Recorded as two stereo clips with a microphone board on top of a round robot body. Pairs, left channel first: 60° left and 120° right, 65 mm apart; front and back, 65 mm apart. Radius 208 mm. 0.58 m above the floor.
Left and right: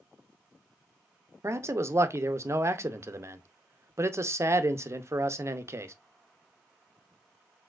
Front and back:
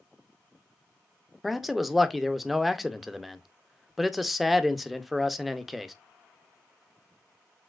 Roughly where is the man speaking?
Right.